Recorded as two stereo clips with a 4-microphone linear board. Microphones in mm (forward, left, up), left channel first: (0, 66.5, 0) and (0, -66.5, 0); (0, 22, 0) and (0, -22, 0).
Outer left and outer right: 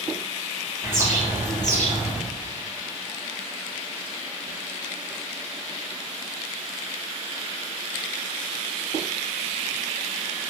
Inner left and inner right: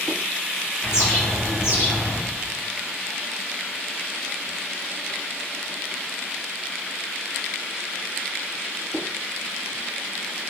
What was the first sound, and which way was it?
A bird, 70° left (ahead or behind).